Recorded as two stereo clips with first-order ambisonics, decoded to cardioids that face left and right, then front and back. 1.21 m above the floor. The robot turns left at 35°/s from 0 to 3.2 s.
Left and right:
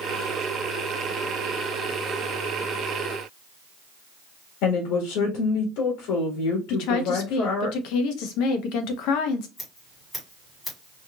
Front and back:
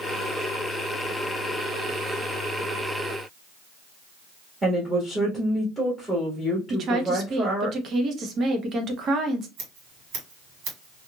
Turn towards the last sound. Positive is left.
turn(degrees=165)